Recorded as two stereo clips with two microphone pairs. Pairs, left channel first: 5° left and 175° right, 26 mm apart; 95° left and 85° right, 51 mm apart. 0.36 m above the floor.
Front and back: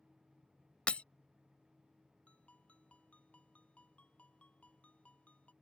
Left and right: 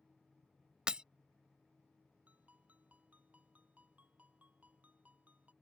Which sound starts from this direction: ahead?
Breaking glass, at 0.9 s.